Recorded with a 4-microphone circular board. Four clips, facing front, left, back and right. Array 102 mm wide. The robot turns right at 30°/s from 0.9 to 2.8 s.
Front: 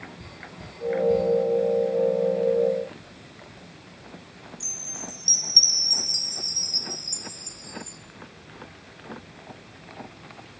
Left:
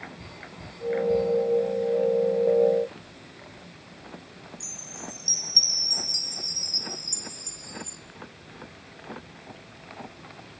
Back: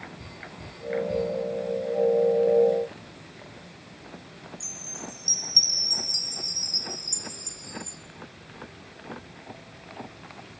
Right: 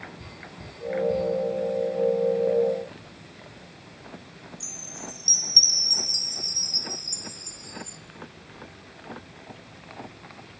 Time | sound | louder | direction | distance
4.6 | a chime | right 1 dB, front 2 dB | 45° right | 3 m